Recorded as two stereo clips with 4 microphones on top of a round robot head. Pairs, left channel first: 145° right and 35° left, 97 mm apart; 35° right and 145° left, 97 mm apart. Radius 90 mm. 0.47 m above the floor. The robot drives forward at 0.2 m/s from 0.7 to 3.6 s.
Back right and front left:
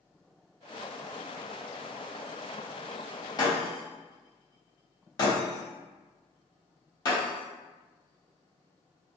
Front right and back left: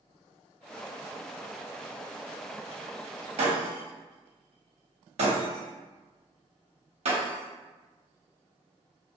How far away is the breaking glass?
About 0.8 m.